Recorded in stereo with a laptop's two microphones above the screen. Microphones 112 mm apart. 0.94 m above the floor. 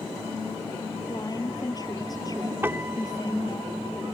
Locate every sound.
1.1 s a woman speaking: 35° left (ahead or behind)
2.6 s a piano: 20° right (ahead or behind)